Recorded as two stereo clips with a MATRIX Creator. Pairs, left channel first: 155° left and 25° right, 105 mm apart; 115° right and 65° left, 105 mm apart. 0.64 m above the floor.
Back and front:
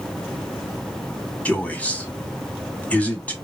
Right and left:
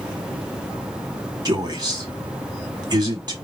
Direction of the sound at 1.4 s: 85° left.